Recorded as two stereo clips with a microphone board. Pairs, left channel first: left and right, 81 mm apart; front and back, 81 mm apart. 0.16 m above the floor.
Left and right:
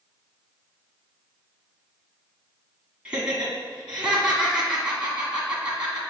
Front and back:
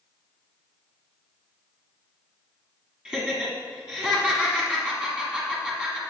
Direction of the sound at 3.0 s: 130° right.